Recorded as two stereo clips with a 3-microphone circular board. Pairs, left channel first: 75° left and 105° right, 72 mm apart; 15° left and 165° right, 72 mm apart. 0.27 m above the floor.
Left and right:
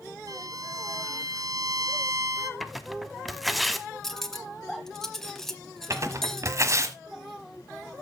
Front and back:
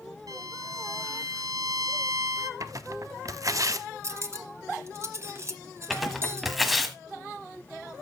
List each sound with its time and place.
0.3 s a violin: 135° right, 0.8 m
2.6 s tearing paper: 165° left, 0.6 m
4.0 s cutlery clinking: 160° left, 0.8 m
5.9 s tearing paper: 75° right, 1.2 m